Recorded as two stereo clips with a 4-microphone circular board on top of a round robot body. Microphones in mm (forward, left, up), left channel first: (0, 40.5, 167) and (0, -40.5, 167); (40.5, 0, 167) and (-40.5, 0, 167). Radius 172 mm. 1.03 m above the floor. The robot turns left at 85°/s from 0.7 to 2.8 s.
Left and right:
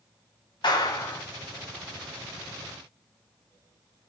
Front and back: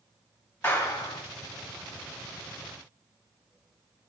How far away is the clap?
About 2.5 m.